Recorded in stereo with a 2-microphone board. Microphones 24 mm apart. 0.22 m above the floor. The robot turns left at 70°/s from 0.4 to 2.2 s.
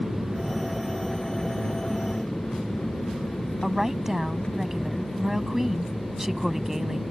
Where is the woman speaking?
15° right (ahead or behind).